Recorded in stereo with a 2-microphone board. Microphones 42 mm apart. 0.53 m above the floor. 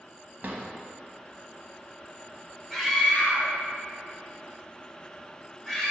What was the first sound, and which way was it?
A drawer, 40° right (ahead or behind).